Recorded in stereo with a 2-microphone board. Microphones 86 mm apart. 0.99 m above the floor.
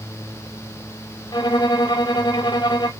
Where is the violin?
60° left (ahead or behind), 0.7 m.